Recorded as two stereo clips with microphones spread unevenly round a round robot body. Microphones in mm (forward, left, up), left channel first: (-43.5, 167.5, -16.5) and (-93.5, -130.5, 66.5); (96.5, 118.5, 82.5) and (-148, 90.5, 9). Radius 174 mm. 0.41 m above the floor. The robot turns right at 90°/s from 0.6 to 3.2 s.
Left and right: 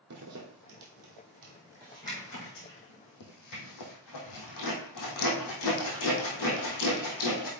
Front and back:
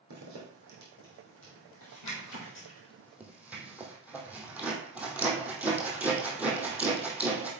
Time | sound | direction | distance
0.1 | a zipper | 135° right | 2.5 m